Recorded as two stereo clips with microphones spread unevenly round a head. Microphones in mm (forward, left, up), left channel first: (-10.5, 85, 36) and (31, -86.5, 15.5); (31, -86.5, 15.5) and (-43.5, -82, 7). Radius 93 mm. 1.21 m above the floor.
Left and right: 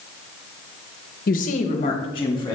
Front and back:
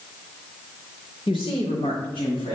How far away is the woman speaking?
About 0.7 m.